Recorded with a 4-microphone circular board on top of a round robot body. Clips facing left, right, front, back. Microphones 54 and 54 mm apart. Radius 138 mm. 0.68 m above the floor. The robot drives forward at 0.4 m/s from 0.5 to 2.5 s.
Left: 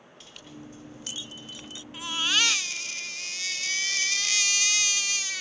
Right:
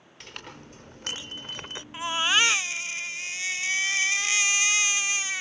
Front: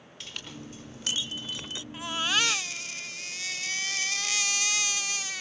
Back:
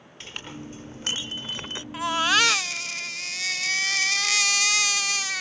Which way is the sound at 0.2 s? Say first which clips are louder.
Right 3 dB, back 4 dB; 120° right.